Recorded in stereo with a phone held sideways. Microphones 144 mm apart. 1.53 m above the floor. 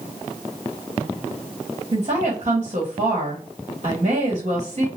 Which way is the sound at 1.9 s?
45° right (ahead or behind).